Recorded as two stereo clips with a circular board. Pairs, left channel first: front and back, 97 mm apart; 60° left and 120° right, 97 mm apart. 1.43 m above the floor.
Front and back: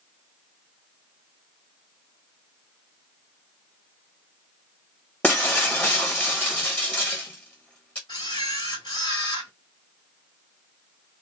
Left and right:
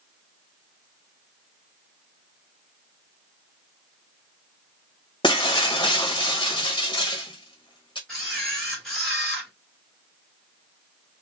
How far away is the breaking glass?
About 1.0 m.